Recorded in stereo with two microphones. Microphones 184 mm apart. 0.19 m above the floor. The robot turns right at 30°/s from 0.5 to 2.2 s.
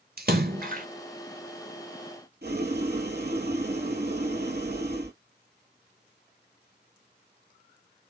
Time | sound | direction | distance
0.2 | a splash | 55° right (ahead or behind) | 0.9 m
2.4 | boiling | 60° right (ahead or behind) | 1.4 m